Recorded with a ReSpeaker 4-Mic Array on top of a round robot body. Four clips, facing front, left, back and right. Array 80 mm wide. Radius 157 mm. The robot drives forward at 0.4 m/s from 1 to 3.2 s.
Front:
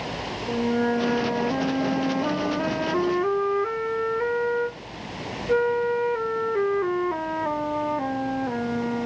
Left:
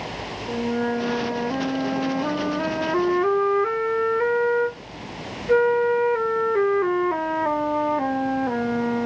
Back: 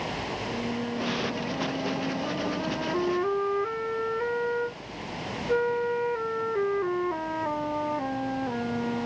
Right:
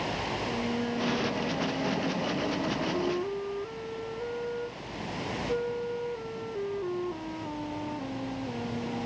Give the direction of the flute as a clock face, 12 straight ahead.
11 o'clock.